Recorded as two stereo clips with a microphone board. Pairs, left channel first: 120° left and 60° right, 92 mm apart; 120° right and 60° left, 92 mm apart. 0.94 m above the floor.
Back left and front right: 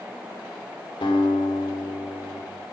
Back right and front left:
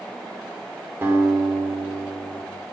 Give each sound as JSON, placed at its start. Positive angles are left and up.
{"t": 1.0, "sound": "a guitar", "azimuth_deg": 120, "distance_m": 2.5}